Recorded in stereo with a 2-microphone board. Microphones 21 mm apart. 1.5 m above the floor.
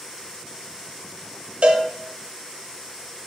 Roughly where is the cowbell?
Right.